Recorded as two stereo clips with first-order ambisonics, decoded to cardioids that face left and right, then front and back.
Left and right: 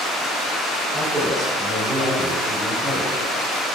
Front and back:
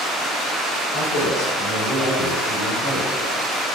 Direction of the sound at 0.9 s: 30° right.